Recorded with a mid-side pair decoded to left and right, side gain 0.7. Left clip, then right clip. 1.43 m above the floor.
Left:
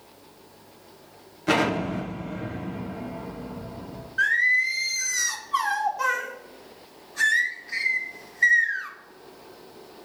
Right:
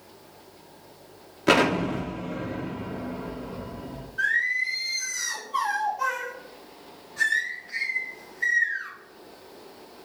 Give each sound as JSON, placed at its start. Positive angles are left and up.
{"t": 1.5, "sound": "an explosion", "azimuth_deg": -30, "distance_m": 2.0}
{"t": 4.2, "sound": "singing", "azimuth_deg": 30, "distance_m": 1.7}